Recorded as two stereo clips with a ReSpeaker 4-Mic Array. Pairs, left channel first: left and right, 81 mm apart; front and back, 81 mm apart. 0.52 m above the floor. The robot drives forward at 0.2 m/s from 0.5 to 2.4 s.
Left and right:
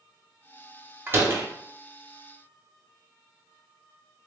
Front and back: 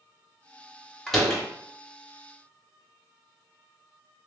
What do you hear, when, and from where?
1.1 s a door slam: 80° right, 0.8 m; by 1.4 s 95° right, 0.8 m